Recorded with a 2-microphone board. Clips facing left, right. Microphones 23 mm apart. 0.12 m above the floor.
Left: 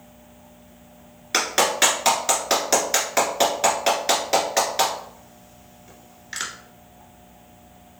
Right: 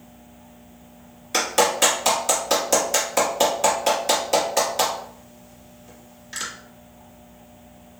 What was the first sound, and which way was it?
A clap, 30° left (ahead or behind).